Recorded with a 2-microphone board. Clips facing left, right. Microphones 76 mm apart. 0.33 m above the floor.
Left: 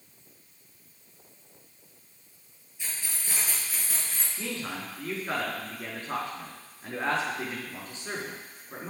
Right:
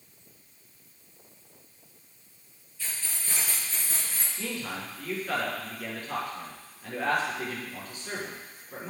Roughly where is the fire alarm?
No fire alarm in this recording.